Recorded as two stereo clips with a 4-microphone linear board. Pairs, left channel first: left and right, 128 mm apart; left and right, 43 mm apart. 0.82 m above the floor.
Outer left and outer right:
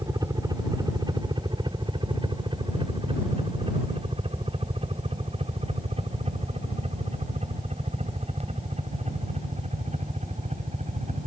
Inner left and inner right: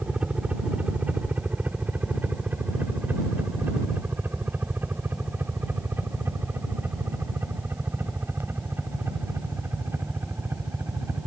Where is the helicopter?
30° right (ahead or behind); by 11.3 s 65° right (ahead or behind).